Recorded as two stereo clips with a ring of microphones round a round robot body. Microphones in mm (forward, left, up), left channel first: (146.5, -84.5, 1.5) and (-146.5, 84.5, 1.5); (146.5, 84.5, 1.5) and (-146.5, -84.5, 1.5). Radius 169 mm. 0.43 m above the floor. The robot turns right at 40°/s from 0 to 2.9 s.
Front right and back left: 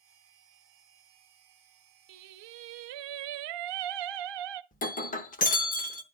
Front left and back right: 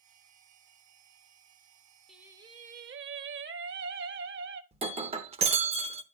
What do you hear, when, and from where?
2.1 s singing: 120° left, 0.6 m; by 4.6 s 150° left, 0.6 m
4.7 s breaking glass: 85° right, 0.7 m